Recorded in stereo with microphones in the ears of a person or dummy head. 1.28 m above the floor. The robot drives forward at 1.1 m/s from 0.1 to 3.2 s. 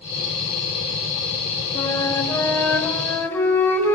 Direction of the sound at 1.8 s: 20° left (ahead or behind).